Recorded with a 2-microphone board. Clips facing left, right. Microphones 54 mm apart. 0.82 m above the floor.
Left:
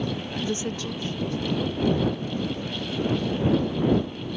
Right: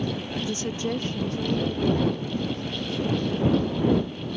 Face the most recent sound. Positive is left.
turn(degrees=-75)  # may be behind; listen again after turning